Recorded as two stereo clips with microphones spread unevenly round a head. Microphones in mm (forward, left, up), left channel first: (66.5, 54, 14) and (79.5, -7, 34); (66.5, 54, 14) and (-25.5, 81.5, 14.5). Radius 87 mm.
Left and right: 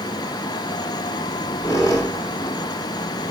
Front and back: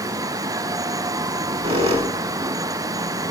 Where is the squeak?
150° left, 1.6 m.